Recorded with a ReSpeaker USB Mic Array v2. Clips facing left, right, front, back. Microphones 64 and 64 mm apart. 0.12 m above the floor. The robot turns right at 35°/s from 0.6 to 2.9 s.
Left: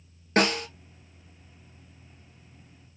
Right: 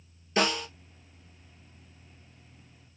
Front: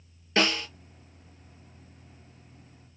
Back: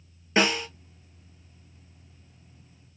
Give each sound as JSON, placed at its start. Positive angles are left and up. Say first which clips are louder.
{"t": 0.4, "sound": "a snare drum", "louder": "left 3 dB, back 2 dB", "azimuth_deg": 110, "distance_m": 0.8}